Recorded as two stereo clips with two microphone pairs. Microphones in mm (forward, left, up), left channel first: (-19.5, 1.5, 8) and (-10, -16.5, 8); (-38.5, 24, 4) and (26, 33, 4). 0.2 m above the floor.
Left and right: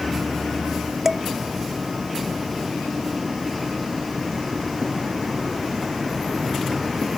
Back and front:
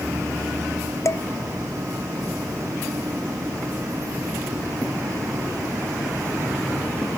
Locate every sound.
1.1 s dishes clattering: 135° right